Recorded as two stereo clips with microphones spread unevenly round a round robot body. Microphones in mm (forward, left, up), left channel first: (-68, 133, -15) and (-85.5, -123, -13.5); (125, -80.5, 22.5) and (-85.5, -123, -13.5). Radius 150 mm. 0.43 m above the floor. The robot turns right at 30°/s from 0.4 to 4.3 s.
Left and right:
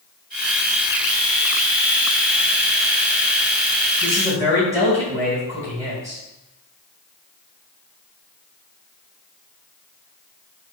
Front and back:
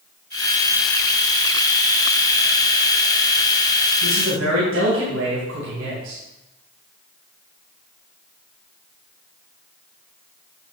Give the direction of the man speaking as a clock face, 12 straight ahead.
6 o'clock.